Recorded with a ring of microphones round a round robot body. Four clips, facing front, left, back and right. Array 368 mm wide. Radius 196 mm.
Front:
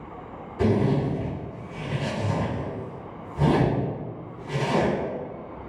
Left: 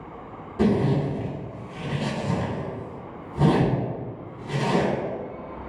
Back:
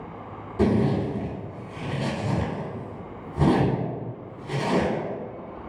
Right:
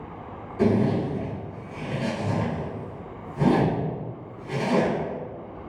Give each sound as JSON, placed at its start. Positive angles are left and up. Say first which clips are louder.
{"t": 0.6, "sound": "a zipper", "louder": "even, even", "azimuth_deg": 150, "distance_m": 1.4}